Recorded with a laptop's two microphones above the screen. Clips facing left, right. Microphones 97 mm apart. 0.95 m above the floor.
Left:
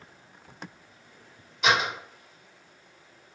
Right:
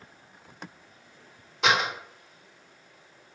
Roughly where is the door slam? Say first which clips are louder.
Even; right.